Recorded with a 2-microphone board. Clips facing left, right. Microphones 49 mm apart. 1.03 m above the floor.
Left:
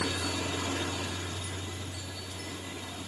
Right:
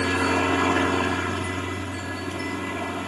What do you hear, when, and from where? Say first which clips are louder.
0.0 s a helicopter: right 11 dB; 60° right (ahead or behind)